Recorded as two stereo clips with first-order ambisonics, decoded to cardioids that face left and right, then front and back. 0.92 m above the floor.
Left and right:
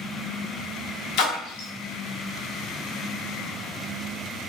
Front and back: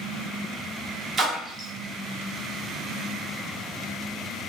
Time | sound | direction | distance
1.2 | a splash | 115° left | 1.3 m